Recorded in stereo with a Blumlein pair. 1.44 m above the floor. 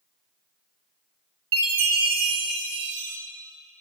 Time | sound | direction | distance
1.5 | a chime | 50° right | 1.1 m